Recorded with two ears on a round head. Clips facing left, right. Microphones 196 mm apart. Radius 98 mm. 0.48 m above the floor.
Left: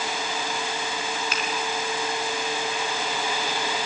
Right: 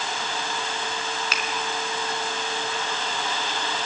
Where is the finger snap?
65° right (ahead or behind), 3.5 m.